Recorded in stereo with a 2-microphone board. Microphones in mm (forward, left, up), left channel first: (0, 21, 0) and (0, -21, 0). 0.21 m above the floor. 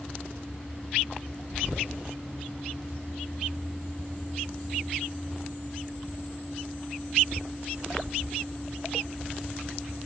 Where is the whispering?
30° left (ahead or behind), 1.8 m.